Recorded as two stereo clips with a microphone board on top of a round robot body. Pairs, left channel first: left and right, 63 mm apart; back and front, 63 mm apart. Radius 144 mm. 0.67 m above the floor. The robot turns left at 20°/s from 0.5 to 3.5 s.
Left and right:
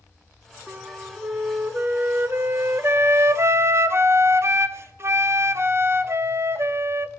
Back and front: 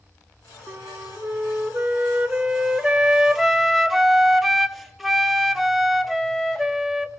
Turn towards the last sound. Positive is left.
turn(degrees=-90)